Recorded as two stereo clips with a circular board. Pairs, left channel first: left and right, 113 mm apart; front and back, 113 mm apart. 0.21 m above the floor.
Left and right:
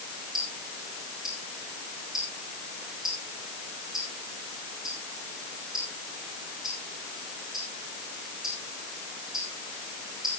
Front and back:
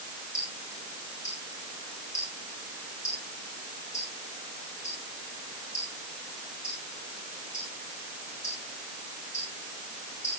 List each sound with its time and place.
0.3 s ticking: 5° right, 4.5 m